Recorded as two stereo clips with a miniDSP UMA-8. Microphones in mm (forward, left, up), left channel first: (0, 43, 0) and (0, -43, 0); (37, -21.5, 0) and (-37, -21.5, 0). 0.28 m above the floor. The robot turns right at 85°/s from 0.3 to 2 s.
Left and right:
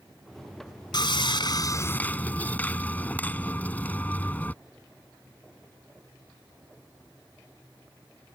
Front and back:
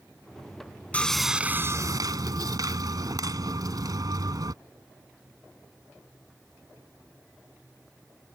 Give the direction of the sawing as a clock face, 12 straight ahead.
10 o'clock.